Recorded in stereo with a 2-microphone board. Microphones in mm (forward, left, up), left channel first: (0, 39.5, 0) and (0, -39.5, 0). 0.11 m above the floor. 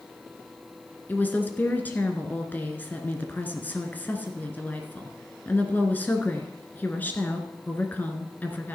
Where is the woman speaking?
20° left (ahead or behind), 1.6 m.